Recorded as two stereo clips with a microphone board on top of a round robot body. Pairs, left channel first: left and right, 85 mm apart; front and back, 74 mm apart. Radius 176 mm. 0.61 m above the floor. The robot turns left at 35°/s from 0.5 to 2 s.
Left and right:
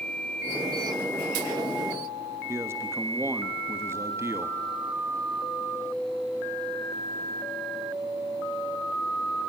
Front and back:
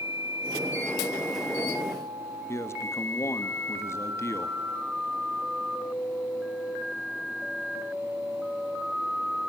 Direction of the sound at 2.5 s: 40° right.